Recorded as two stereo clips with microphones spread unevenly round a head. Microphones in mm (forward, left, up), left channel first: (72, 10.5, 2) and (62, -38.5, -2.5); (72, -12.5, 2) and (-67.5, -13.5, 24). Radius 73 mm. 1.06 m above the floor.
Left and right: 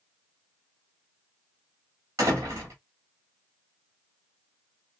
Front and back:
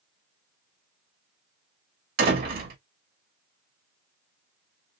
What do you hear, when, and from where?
2.2 s a door slam: 160° right, 2 m